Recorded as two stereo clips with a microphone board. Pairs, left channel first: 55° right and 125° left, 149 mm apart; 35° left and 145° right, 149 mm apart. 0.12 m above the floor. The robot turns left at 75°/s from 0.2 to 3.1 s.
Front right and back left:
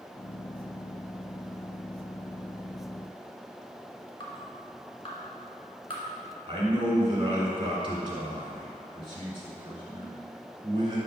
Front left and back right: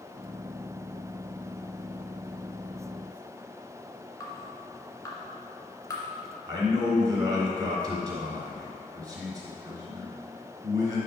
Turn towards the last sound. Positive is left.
turn(degrees=160)